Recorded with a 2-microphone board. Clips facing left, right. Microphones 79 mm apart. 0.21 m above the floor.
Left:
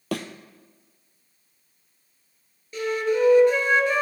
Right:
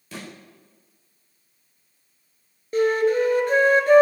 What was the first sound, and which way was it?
A thud, 75° left (ahead or behind).